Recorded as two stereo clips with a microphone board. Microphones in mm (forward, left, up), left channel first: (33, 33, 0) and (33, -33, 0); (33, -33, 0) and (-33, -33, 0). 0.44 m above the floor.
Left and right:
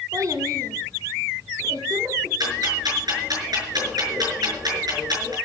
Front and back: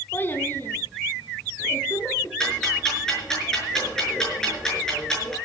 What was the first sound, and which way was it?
A child speaking, 60° right.